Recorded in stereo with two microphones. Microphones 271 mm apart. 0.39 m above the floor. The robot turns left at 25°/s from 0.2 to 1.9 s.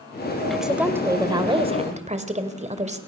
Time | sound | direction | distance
0.5 | a woman speaking | straight ahead | 1.9 m